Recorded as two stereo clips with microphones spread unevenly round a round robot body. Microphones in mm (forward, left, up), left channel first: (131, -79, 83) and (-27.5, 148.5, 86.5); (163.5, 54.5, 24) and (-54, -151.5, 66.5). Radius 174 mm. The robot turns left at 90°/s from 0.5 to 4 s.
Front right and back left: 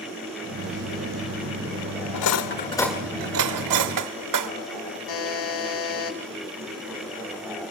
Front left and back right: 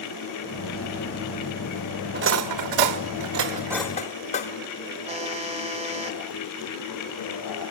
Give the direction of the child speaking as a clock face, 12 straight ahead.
I don't hear a child speaking.